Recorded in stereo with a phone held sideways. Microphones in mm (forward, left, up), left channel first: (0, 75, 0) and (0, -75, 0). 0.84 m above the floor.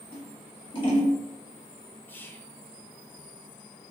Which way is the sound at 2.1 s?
15° left (ahead or behind).